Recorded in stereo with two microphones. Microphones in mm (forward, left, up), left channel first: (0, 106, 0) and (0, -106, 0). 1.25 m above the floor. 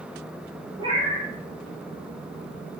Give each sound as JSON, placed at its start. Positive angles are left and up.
{"t": 0.8, "sound": "a cat meowing", "side_deg": -25, "distance_m": 2.0}